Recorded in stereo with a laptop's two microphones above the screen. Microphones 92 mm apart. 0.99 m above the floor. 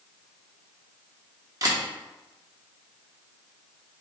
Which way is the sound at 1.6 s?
40° right (ahead or behind).